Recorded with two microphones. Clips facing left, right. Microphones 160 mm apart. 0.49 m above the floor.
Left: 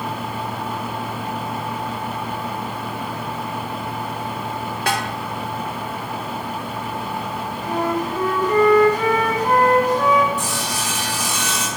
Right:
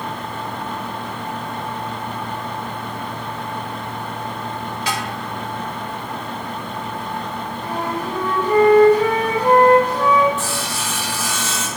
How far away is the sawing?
About 1.4 m.